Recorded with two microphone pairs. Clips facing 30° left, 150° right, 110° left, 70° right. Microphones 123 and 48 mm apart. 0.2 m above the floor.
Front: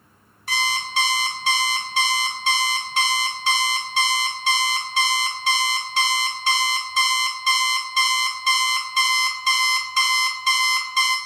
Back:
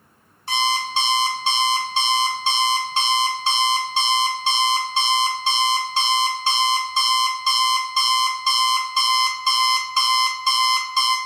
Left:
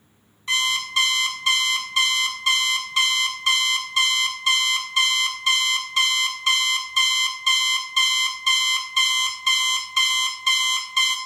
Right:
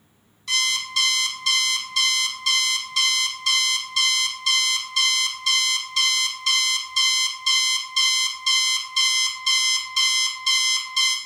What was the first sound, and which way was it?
An alarm clock, 160° left.